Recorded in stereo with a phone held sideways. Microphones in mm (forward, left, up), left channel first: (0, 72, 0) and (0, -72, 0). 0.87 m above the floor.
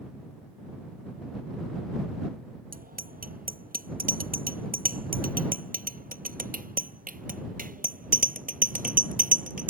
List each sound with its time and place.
2.7 s a bicycle bell: 85° right; by 9.7 s 70° right (ahead or behind)